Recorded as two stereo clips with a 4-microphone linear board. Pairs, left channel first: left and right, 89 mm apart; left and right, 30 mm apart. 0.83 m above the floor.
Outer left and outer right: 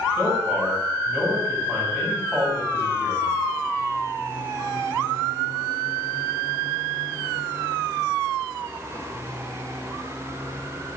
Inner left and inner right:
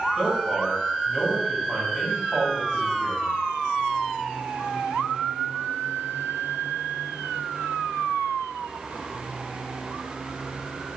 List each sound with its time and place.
0.2 s a man speaking: 20° right (ahead or behind), 4 m